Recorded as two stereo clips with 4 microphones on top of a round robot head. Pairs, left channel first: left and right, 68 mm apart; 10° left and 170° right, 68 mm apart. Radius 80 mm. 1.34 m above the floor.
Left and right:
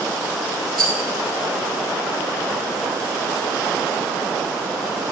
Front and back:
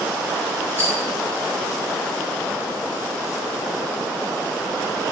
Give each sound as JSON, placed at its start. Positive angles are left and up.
{"t": 0.8, "sound": "a rattle", "azimuth_deg": -105, "distance_m": 6.0}